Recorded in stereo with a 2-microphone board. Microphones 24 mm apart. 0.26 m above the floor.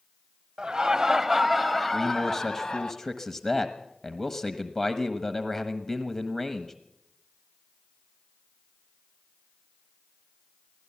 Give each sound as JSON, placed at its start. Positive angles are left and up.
{"t": 0.6, "sound": "laughter", "side_deg": -35, "distance_m": 1.2}
{"t": 1.9, "sound": "a man speaking", "side_deg": 20, "distance_m": 1.2}